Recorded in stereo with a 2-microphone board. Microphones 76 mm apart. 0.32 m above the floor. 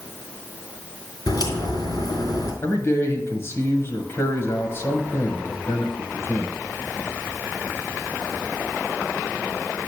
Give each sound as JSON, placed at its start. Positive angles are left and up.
{"t": 1.3, "sound": "a crack", "side_deg": 65, "distance_m": 3.0}
{"t": 2.6, "sound": "a man speaking", "side_deg": 35, "distance_m": 1.4}